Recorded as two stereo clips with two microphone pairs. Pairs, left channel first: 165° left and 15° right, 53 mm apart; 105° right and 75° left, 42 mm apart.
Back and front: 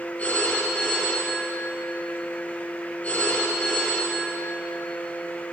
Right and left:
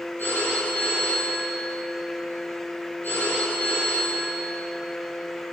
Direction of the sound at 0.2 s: 135° right.